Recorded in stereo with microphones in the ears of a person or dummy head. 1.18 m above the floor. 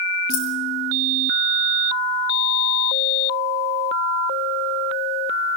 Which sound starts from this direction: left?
Keys jangling, at 0.3 s.